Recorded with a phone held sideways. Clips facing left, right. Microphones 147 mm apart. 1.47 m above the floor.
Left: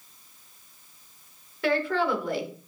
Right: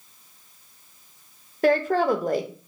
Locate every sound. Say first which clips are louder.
1.6 s a woman speaking: right 5 dB; 45° right (ahead or behind), 0.8 m